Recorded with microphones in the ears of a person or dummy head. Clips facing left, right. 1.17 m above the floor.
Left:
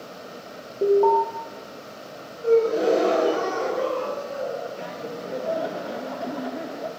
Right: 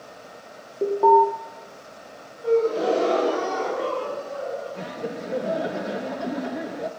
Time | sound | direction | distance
0.8 | an alarm | centre (ahead or behind) | 2 m
2.4 | a gasp | 30° left (ahead or behind) | 4 m
4.8 | laughter | 30° right (ahead or behind) | 0.6 m